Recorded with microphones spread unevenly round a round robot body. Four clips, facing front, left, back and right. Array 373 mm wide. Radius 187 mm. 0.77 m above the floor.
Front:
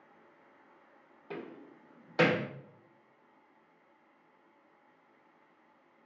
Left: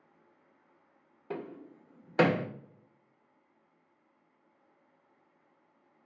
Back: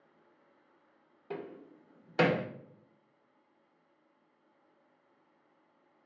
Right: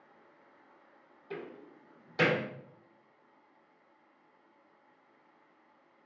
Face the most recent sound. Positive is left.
turn(degrees=75)